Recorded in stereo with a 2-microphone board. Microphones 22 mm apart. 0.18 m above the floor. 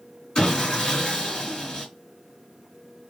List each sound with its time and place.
0.3 s sawing: 40° left (ahead or behind), 2 m